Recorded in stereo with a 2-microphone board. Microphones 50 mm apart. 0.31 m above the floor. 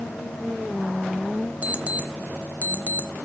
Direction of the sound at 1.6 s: 30° right (ahead or behind).